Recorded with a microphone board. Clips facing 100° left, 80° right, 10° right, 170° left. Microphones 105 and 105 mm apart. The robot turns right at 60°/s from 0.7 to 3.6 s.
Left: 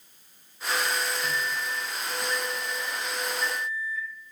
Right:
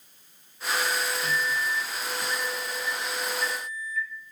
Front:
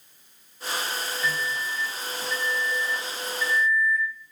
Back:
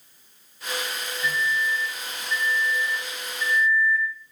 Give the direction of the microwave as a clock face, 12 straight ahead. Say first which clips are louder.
Right 2 dB, back 5 dB; 4 o'clock.